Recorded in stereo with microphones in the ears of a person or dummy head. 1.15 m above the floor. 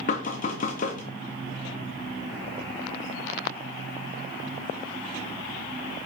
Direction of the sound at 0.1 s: 45° left (ahead or behind).